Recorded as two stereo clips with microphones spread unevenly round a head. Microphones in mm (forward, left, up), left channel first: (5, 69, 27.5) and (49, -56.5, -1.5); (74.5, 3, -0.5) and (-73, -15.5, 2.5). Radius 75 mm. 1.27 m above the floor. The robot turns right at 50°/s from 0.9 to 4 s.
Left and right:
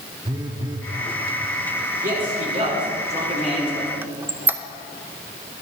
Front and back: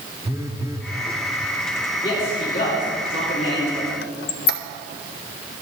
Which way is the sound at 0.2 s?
130° right.